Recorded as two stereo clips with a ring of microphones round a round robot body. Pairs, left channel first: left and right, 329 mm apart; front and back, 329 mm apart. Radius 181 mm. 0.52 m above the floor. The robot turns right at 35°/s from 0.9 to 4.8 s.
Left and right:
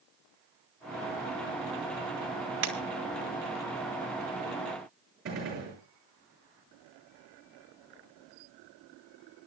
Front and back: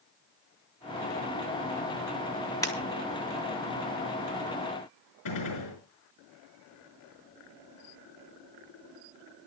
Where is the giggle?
I don't hear a giggle.